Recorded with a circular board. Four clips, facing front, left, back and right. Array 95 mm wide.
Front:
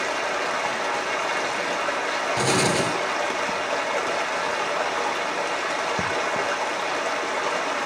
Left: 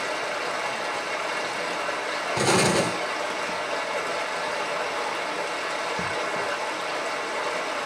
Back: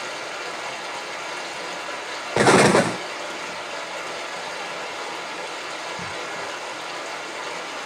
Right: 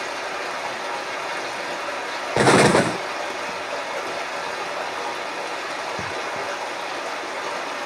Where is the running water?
10° right, 1.5 m.